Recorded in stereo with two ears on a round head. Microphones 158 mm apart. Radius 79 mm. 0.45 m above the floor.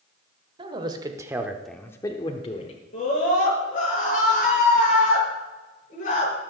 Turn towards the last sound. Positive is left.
turn(degrees=50)  # may be behind; listen again after turning